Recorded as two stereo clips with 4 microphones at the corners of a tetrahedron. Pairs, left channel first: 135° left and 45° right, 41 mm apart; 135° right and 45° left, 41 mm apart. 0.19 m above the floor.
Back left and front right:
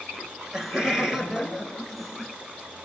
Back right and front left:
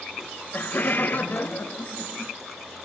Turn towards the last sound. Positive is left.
turn(degrees=-135)